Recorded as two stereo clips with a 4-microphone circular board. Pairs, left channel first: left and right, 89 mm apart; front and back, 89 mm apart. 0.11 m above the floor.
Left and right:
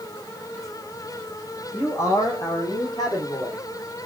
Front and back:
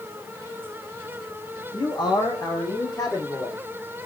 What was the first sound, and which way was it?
A man speaking, 30° left.